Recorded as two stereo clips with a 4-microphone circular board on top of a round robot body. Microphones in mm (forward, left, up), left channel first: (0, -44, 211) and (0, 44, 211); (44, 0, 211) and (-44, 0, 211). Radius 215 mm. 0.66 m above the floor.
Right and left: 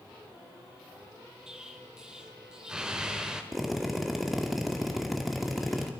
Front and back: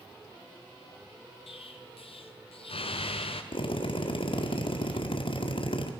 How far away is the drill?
About 2.5 m.